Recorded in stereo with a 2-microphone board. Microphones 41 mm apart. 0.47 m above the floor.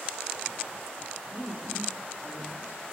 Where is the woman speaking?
30° left (ahead or behind), 8 m.